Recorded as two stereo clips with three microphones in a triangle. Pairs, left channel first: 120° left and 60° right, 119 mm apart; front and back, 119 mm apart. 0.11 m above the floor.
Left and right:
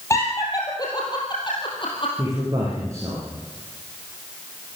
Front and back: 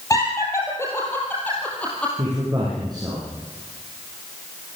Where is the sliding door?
No sliding door in this recording.